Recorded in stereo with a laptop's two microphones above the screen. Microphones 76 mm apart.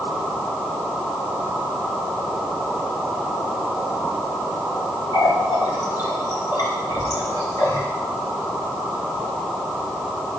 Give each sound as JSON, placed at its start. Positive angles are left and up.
{"t": 5.1, "sound": "a running tap", "side_deg": 70, "distance_m": 2.0}